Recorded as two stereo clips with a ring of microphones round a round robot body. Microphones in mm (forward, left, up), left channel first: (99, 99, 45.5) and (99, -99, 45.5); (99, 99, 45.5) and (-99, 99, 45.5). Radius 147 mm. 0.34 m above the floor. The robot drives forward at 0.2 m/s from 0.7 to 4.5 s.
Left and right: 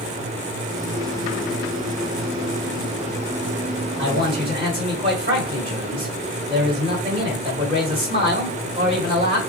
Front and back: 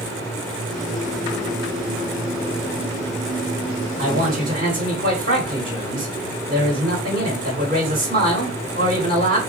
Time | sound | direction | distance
4.0 | a man speaking | 145° right | 1.7 m